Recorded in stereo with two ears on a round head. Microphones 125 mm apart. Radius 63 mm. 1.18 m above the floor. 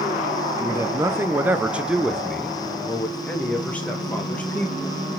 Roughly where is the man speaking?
Right.